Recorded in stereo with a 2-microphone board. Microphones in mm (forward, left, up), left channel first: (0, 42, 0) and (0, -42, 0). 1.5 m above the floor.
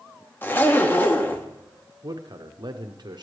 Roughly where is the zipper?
Left.